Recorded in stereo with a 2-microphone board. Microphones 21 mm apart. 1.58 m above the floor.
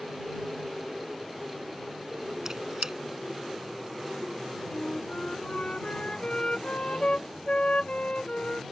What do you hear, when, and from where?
2.5 s a squeak: 20° right (ahead or behind)
4.7 s a flute: 75° left (ahead or behind)